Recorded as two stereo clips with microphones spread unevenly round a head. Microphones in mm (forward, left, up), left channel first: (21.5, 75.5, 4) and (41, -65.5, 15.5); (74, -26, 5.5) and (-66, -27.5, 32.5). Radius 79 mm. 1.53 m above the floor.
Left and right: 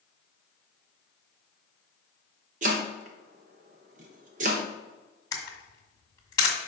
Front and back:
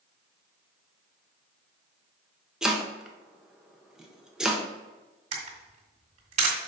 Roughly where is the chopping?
Right.